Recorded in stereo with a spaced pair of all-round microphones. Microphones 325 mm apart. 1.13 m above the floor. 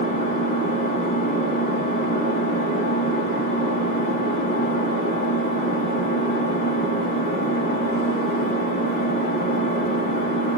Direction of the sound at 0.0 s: 60° left (ahead or behind).